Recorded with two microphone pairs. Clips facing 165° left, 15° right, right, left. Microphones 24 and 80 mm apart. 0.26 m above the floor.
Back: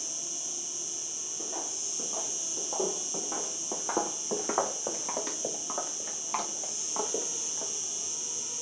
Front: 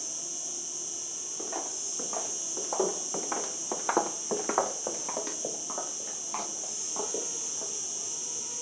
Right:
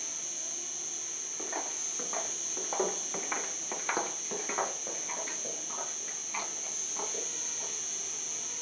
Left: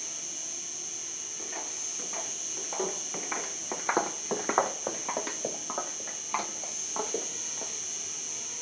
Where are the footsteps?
30° right, 2.5 m; by 7.7 s 110° left, 3 m.